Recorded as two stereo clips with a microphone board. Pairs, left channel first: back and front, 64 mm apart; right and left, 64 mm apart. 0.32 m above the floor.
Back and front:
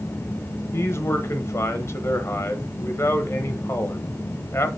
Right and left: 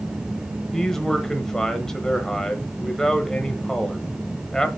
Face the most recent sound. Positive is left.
turn(degrees=-170)